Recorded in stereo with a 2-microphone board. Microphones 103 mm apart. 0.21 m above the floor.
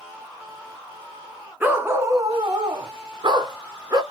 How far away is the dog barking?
About 1.1 m.